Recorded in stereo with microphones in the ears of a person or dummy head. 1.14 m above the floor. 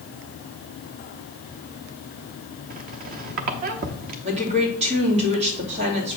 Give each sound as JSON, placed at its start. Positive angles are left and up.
{"t": 2.7, "sound": "a squeak", "side_deg": -45, "distance_m": 0.7}
{"t": 4.2, "sound": "a woman speaking", "side_deg": -35, "distance_m": 2.5}